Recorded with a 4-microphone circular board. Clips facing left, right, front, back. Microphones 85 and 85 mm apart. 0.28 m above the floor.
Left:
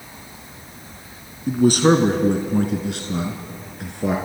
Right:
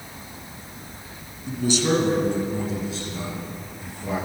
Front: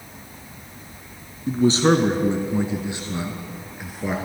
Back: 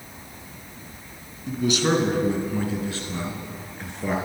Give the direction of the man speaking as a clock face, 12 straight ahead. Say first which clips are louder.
Left 7 dB, front 5 dB; 10 o'clock.